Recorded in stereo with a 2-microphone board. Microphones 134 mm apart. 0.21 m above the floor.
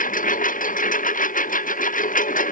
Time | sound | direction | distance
0.0 | a lawn mower | 80° left | ?